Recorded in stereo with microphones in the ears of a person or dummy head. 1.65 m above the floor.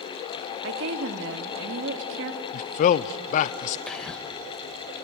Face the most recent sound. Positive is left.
turn(degrees=0)  # may be behind; listen again after turning